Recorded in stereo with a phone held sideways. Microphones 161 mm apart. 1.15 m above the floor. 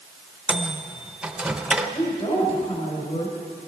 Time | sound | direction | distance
0.5 | a microwave | 5° right (ahead or behind) | 0.7 m
1.9 | a woman speaking | 40° left (ahead or behind) | 4.5 m